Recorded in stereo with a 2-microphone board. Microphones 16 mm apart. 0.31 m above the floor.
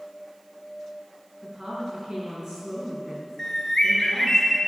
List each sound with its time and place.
1.4 s a woman speaking: 50° right (ahead or behind), 4 m
3.4 s a bird: 25° left (ahead or behind), 2.5 m